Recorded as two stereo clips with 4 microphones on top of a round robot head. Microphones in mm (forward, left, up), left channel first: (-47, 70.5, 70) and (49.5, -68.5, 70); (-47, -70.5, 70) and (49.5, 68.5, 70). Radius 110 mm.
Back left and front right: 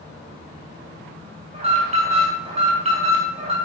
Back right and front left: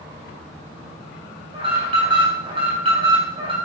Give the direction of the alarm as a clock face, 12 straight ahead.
12 o'clock.